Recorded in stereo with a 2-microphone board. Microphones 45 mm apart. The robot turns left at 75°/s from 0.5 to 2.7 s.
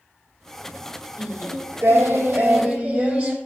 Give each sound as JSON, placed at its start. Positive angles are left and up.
{"t": 1.2, "sound": "singing", "azimuth_deg": -40, "distance_m": 3.5}